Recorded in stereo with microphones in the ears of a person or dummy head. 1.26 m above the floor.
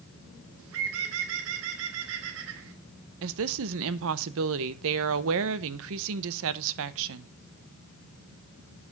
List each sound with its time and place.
0.6 s a bird: 70° right (ahead or behind), 1.2 m
3.2 s a woman speaking: 75° right (ahead or behind), 0.8 m